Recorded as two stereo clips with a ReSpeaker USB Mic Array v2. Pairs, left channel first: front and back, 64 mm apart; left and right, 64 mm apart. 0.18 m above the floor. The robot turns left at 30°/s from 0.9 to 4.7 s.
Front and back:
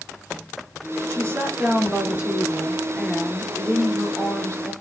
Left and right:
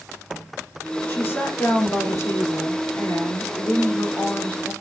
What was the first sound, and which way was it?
A woman speaking, 145° left.